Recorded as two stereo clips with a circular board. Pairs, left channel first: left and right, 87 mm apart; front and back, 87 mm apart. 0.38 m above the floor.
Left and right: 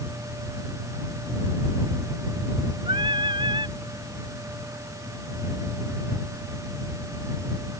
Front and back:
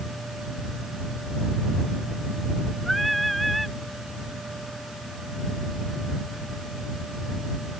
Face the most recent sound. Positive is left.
turn(degrees=-90)